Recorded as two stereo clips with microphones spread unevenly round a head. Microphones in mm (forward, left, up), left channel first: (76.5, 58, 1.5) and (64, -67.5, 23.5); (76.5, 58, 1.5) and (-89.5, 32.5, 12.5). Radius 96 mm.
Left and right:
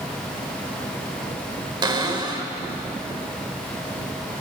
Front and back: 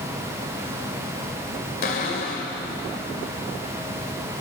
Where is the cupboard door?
40° right, 2.5 m.